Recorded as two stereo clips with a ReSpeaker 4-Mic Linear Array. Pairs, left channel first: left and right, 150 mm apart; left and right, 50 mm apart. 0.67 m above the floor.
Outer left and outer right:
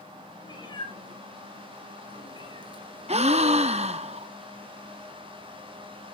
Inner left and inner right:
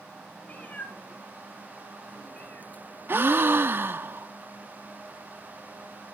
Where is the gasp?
45° right (ahead or behind), 0.5 m.